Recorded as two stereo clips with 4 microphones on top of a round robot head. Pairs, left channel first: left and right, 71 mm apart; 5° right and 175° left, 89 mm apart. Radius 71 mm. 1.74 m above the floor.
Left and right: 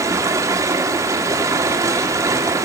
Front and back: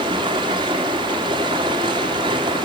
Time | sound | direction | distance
0.0 | running water | 135° right | 3 m